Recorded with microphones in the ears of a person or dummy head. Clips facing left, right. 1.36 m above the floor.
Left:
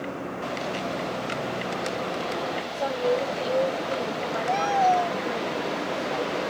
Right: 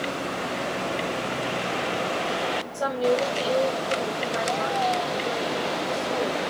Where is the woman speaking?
15° right (ahead or behind), 5 m; by 6.4 s 15° left (ahead or behind), 7 m.